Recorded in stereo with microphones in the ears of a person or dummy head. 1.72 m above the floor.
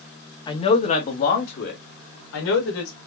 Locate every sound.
0.5 s a man speaking: 30° left (ahead or behind), 1.2 m; by 2.9 s 80° left, 2.5 m